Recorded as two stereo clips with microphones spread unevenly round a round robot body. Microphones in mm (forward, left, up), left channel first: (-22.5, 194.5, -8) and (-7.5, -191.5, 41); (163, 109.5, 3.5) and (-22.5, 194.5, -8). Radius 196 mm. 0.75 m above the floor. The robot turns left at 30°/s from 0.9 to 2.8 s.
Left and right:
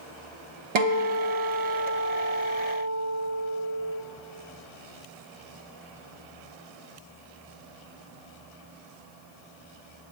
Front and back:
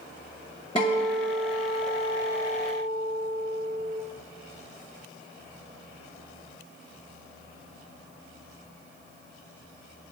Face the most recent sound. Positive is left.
turn(degrees=-160)